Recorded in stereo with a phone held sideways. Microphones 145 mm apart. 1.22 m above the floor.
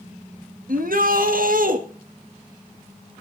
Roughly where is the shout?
Right.